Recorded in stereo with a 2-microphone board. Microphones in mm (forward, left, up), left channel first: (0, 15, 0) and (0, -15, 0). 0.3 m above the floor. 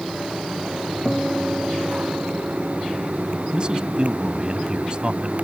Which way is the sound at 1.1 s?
15° right (ahead or behind).